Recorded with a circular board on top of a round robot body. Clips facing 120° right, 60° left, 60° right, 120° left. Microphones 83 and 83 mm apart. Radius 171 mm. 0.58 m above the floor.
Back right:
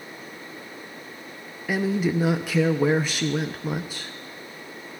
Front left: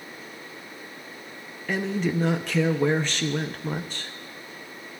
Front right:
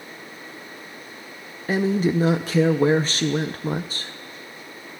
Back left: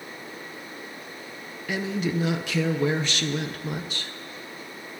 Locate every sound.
1.7 s a woman speaking: 45° right, 0.8 m